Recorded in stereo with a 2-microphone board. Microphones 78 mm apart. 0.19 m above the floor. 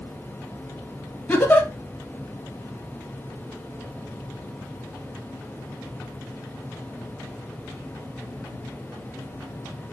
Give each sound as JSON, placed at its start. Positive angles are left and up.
{"t": 1.3, "sound": "a giggle", "side_deg": 25, "distance_m": 1.9}